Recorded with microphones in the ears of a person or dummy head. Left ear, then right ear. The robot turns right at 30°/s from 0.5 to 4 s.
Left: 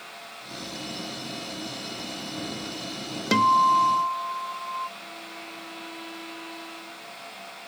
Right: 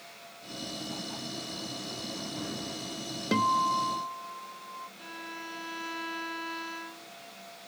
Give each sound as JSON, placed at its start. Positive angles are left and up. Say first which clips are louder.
{"t": 3.3, "sound": "a guitar", "louder": "left 8 dB", "side_deg": 20}
{"t": 5.0, "sound": "a violin", "louder": "left 2 dB", "side_deg": -50}